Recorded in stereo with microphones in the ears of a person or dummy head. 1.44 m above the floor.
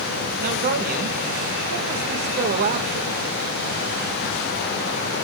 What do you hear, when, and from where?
0.4 s a man speaking: 45° right (ahead or behind), 1.9 m